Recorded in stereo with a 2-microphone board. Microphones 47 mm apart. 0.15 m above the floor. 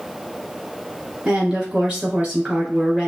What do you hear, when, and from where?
1.2 s a woman speaking: 40° right (ahead or behind), 2.0 m